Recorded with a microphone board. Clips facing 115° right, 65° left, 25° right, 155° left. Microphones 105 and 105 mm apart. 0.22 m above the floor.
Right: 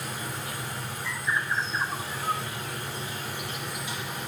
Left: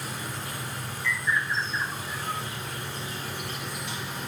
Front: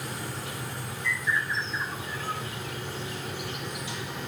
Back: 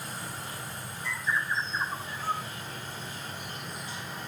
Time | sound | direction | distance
0.0 | an insect | 25° right | 3 m
1.0 | a bird | 155° right | 1.1 m